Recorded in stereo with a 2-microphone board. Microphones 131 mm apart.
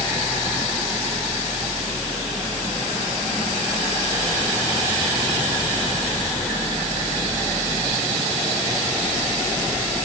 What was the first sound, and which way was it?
Only background noise.